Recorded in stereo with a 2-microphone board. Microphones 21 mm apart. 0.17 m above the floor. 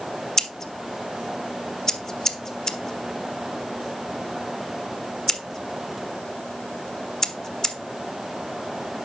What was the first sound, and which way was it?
Scissors, 30° left (ahead or behind).